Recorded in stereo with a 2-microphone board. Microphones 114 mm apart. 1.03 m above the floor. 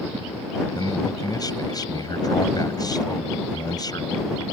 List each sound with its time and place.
0.8 s a man speaking: 35° left (ahead or behind)